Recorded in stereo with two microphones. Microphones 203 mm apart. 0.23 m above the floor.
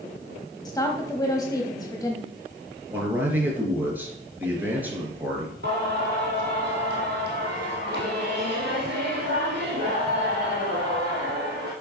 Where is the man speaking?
10° right (ahead or behind), 3.5 m.